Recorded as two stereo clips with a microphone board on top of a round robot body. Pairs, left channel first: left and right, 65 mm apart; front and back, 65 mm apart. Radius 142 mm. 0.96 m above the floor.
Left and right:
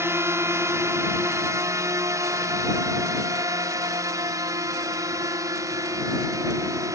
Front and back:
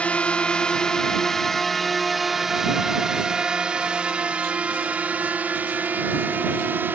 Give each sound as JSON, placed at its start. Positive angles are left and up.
{"t": 0.0, "sound": "a drone", "azimuth_deg": -65}